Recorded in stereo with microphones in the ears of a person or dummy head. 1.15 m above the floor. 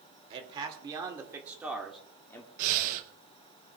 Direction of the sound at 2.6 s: 45° right (ahead or behind).